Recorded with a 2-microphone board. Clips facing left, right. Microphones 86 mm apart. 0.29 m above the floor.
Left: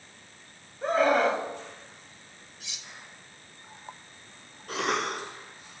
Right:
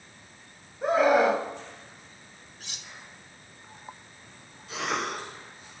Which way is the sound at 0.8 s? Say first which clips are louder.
Right 2 dB; 10° right (ahead or behind).